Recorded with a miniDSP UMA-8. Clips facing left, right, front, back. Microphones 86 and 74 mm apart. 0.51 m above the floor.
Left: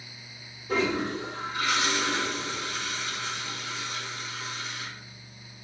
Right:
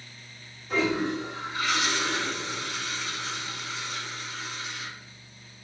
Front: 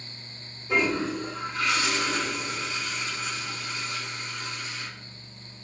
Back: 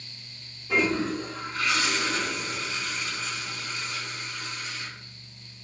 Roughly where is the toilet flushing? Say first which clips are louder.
Right 1 dB, even; ahead left.